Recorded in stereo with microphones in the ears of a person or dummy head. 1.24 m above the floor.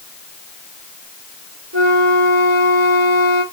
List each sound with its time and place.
1.7 s a flute: 80° right, 3.5 m